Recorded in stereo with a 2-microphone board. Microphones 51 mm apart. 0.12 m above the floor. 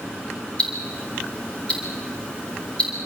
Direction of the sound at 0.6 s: 20° left (ahead or behind).